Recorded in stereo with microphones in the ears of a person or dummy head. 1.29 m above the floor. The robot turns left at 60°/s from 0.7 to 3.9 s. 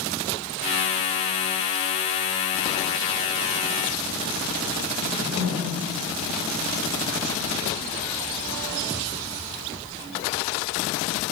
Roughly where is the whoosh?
Right.